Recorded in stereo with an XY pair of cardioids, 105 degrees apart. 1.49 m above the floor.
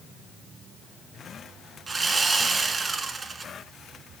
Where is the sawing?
30° right, 1.3 m.